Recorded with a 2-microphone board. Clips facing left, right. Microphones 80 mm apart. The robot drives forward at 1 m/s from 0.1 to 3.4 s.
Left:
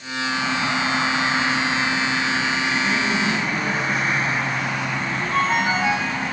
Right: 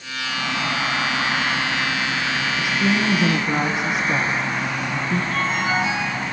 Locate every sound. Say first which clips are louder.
2.6 s a woman speaking: right 1 dB; 70° right (ahead or behind), 6.5 m; by 5.2 s 75° right (ahead or behind), 6.5 m
5.3 s a ringtone: left 5 dB; 40° left (ahead or behind), 8.5 m